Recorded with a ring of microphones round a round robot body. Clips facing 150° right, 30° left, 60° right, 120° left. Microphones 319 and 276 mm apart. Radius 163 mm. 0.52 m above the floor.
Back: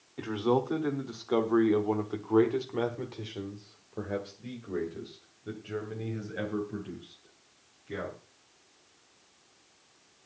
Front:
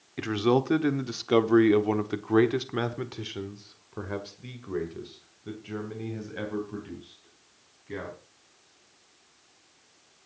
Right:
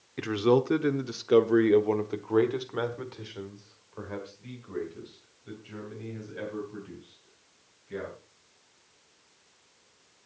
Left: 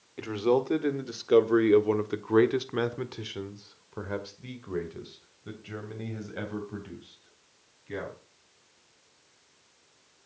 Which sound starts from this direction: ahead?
A man speaking, at 0.2 s.